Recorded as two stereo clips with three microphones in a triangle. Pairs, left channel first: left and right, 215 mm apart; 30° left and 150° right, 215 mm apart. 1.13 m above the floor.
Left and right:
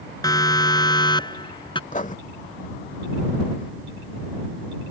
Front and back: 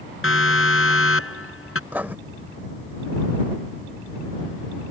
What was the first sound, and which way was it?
A siren, 15° left.